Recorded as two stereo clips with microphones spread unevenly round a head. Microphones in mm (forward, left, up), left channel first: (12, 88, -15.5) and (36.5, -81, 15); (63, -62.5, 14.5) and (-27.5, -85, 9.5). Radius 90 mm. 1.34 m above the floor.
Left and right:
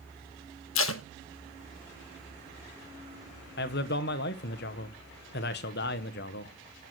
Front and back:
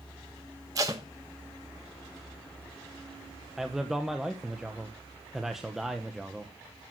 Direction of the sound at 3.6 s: 110° left.